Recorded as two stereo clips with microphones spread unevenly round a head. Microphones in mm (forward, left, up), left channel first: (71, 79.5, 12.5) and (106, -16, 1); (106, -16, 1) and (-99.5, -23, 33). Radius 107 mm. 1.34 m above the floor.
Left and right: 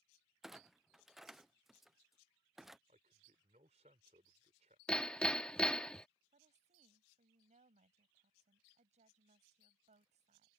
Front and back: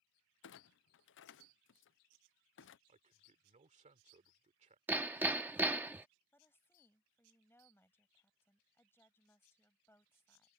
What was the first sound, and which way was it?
A clunk, 15° left.